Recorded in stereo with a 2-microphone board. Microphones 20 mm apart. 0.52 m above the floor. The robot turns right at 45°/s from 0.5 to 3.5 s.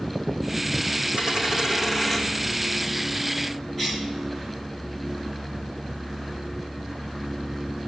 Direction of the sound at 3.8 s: 15° left (ahead or behind).